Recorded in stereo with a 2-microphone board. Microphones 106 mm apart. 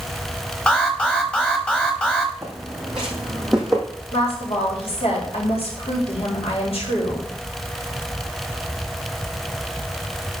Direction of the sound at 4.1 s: 70° left (ahead or behind).